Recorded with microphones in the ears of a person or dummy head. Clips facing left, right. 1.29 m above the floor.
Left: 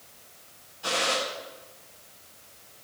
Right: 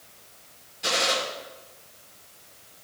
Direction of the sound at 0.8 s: 30° right (ahead or behind).